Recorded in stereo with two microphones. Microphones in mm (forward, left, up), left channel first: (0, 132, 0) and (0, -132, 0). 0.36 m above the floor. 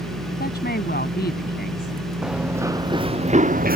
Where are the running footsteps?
5° right (ahead or behind); by 3.8 s 35° right (ahead or behind).